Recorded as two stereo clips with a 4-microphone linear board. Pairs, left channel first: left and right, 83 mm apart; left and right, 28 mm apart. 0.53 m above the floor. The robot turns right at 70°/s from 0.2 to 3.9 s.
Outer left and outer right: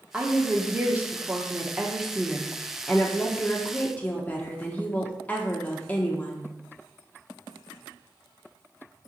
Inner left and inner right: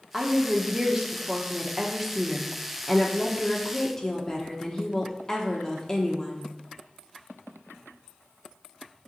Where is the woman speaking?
10° right (ahead or behind), 0.7 m; by 6.5 s 20° left (ahead or behind), 0.7 m.